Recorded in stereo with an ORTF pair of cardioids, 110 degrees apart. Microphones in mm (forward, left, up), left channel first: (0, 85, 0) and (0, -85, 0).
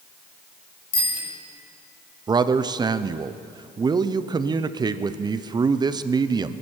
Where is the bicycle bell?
35° left, 6 m.